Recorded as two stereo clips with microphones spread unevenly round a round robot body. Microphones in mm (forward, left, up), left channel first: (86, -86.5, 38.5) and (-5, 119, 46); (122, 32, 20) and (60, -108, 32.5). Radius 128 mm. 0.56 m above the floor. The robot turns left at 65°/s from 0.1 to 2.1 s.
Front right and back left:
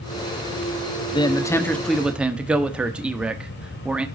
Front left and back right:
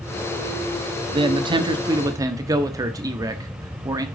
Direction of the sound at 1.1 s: 100° right.